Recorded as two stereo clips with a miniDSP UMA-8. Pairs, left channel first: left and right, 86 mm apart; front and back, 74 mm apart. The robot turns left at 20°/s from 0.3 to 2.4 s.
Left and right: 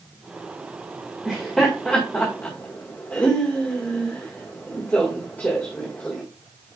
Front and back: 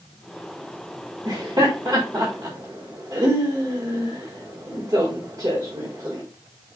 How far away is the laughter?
About 1.8 m.